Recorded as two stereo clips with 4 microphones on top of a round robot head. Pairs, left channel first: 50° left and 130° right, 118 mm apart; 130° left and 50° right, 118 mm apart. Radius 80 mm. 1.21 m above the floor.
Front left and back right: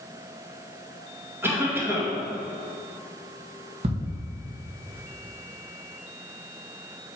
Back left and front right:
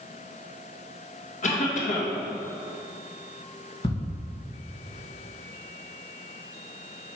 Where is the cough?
155° left, 1.8 m.